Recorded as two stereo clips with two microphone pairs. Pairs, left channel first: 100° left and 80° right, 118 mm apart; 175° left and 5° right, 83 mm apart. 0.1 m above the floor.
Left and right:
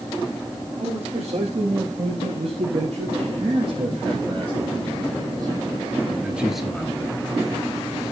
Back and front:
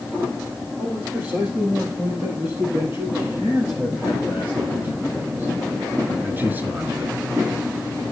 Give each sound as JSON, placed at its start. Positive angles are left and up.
{"t": 0.8, "sound": "a man speaking", "azimuth_deg": -75, "distance_m": 6.5}